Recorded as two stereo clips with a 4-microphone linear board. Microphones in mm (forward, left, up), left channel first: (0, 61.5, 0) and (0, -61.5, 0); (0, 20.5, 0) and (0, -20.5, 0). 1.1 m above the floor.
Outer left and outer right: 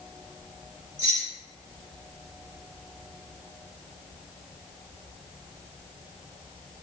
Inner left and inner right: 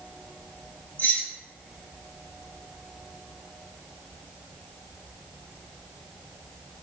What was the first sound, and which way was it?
Keys jangling, 40° left (ahead or behind).